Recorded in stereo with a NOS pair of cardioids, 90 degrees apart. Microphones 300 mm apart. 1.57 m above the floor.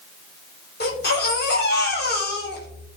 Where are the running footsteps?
No running footsteps in this recording.